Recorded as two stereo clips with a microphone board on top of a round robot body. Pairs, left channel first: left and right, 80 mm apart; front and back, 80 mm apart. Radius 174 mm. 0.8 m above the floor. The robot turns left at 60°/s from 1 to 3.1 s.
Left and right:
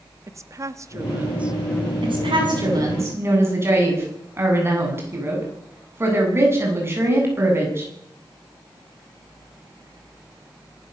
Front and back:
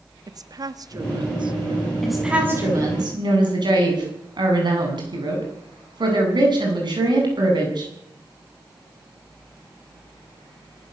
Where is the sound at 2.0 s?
85° right, 8.5 m; by 7.9 s 150° right, 8.5 m.